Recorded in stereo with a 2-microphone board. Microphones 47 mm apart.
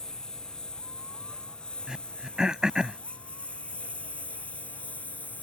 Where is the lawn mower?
15° left (ahead or behind); by 5.4 s 35° left (ahead or behind).